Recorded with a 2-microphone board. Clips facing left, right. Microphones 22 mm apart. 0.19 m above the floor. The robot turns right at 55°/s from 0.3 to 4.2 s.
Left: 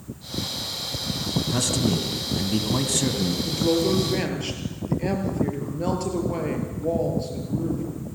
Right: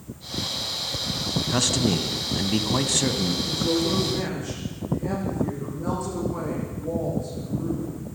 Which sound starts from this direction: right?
A man speaking, at 1.5 s.